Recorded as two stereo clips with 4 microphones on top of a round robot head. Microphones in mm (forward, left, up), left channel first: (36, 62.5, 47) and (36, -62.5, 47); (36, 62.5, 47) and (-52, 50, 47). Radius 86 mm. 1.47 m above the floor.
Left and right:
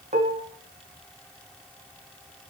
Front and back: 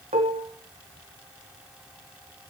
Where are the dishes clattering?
140° right, 1.6 m.